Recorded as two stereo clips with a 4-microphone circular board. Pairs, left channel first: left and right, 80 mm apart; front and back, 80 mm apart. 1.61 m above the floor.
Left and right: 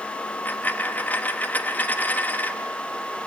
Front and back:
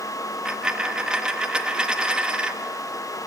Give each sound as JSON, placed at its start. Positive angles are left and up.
{"t": 0.2, "sound": "a dropped coin", "azimuth_deg": 115, "distance_m": 1.0}